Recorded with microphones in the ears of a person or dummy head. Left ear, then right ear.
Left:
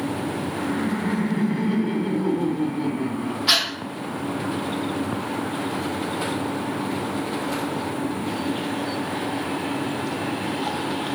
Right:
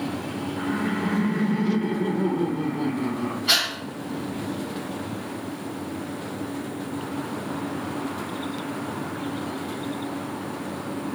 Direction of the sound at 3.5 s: 40° left (ahead or behind).